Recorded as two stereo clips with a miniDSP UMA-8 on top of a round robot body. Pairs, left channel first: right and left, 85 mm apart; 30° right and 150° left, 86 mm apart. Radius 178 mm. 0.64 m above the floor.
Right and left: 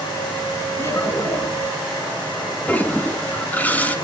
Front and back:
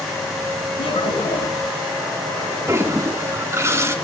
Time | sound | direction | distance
0.8 | laughter | 30° right | 9 m
2.7 | a toilet flushing | 160° right | 1.9 m